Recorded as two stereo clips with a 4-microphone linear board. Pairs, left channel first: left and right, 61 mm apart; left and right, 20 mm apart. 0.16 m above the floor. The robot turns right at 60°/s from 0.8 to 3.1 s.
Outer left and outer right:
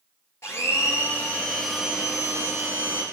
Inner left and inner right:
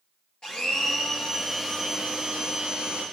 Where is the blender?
125° left, 3 m; by 3.0 s 100° right, 3 m.